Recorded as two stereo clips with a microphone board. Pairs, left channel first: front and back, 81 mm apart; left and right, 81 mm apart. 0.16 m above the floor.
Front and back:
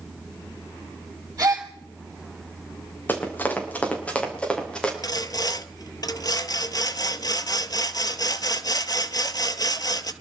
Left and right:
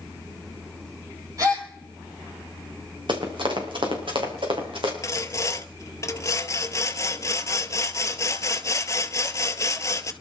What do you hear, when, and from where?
1.4 s a gasp: 135° right, 2.5 m
3.1 s running footsteps: 70° right, 4 m; by 4.9 s 80° right, 5 m
5.0 s sawing: 40° left, 0.7 m